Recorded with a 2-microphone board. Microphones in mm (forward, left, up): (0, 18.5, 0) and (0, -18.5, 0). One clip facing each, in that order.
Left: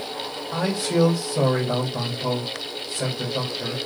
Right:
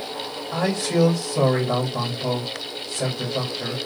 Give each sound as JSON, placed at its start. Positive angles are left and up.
{"t": 0.5, "sound": "a man speaking", "side_deg": -10, "distance_m": 2.0}